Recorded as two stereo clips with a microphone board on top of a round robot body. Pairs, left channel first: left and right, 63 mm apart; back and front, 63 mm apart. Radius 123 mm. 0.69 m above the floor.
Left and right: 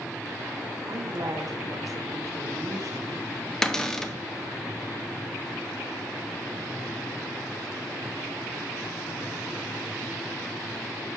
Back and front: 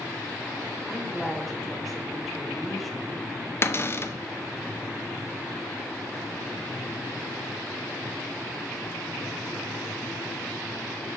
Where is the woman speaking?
90° right, 1.0 m.